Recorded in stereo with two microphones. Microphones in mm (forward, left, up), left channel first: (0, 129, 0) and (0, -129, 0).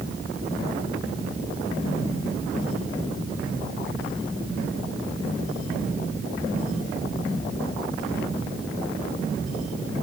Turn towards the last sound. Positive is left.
No sound to turn to.